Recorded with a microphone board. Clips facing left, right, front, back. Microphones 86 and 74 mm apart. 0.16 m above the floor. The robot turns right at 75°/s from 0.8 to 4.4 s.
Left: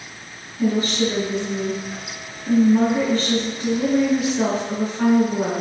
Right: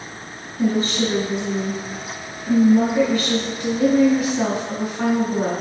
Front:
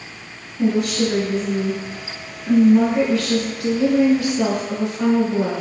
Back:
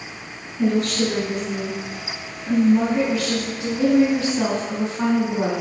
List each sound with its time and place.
0.6 s a woman speaking: 75° right, 1.9 m; by 5.5 s 165° right, 1.9 m